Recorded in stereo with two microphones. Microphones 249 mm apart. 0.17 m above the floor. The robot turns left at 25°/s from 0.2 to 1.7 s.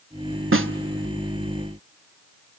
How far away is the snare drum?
About 0.5 m.